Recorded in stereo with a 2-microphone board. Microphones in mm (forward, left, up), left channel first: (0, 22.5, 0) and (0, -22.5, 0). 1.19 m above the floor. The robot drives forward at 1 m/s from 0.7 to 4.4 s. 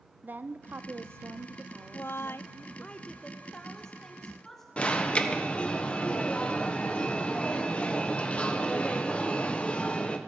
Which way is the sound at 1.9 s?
45° left (ahead or behind).